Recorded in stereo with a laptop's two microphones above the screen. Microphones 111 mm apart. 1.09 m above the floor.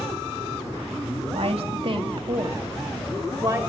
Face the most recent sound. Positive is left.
turn(degrees=-25)  # may be behind; listen again after turning